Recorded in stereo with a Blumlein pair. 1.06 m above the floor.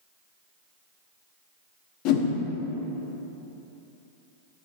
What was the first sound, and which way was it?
A whoosh, 45° left.